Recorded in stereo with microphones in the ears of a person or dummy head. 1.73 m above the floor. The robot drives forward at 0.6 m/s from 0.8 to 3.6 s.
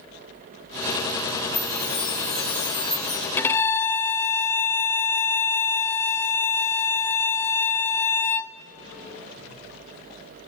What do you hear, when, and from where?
1.5 s a chime: 10° left (ahead or behind), 1.8 m; by 3.3 s 5° left (ahead or behind), 3 m
3.4 s a violin: 10° left (ahead or behind), 0.8 m; by 8.6 s 15° left (ahead or behind), 0.6 m